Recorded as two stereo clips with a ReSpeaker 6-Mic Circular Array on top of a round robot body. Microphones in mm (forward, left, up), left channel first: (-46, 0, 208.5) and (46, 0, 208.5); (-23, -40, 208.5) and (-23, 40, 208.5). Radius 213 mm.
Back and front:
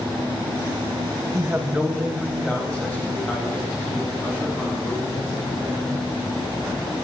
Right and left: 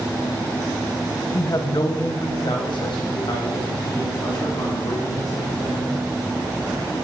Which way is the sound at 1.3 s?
50° right.